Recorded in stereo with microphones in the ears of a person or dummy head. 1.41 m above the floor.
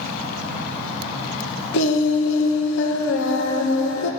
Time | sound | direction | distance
1.7 | singing | 65° left (ahead or behind) | 1.4 m